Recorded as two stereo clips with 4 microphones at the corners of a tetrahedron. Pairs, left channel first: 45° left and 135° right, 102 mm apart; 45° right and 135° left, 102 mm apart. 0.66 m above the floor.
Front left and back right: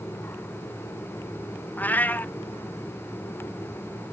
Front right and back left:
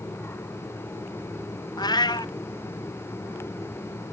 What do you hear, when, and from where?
1.8 s a cat meowing: 20° right, 0.7 m